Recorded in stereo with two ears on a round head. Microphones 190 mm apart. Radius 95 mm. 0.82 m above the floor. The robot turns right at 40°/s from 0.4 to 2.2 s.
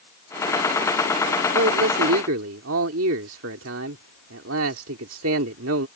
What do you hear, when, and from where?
1.5 s a man speaking: 65° right (ahead or behind); by 5.9 s 70° right (ahead or behind)